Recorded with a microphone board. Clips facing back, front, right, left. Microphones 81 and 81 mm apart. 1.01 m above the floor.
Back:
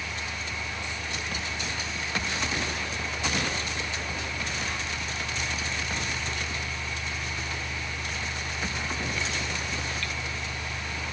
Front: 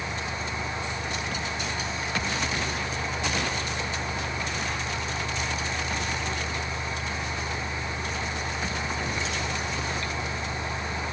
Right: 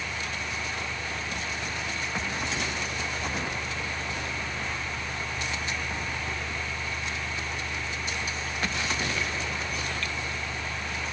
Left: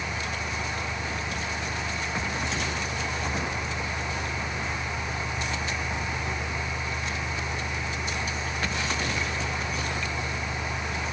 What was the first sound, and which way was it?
Only background noise.